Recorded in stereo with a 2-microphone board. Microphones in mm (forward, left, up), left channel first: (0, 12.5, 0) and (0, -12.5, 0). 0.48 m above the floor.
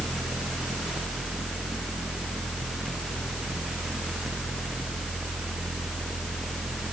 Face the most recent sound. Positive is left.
No sound to turn to.